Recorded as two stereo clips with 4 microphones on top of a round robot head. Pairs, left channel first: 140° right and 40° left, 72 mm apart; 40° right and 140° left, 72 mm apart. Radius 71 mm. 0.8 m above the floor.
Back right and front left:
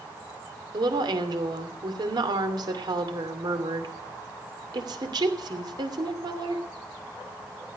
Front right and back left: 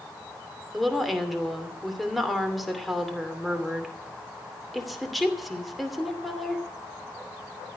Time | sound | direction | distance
0.7 | a woman speaking | 50° left | 2.5 m